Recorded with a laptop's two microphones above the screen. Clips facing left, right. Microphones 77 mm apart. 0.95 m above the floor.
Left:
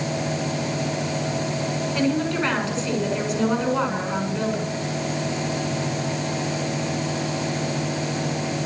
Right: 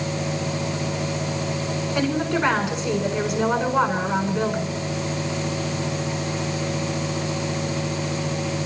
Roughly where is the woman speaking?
Centre.